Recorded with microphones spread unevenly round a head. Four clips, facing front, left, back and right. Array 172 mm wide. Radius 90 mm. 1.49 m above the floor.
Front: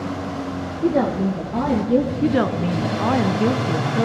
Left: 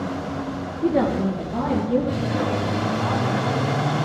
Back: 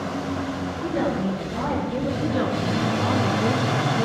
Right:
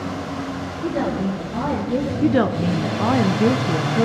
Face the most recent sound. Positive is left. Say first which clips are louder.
# right 6 dB, front 4 dB
turn(degrees=-75)